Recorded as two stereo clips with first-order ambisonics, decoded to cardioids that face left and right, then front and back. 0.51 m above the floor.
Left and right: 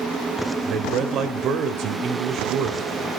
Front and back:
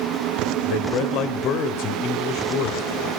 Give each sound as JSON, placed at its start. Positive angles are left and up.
{"t": 0.7, "sound": "a man speaking", "azimuth_deg": -40, "distance_m": 1.6}